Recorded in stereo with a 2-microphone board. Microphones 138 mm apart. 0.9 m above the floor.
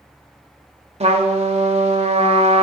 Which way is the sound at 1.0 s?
50° right (ahead or behind).